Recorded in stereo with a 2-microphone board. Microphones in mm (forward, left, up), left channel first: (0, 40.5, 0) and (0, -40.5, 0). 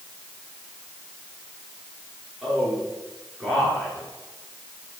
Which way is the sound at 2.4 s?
5° right (ahead or behind).